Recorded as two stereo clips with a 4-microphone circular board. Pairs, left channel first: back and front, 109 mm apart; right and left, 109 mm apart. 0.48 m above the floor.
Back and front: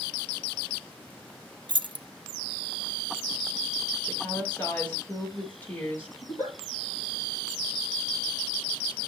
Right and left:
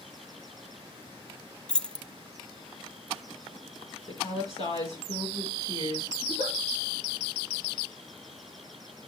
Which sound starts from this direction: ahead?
Keys jangling, at 1.7 s.